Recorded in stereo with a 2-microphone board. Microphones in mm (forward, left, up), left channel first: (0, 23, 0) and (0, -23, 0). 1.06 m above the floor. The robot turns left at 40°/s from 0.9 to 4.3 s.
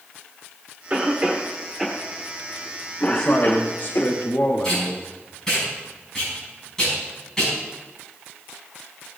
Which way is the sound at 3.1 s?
165° left.